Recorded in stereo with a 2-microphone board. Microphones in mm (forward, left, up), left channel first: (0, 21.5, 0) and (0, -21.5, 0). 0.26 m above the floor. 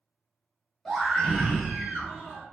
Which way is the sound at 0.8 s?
10° left (ahead or behind).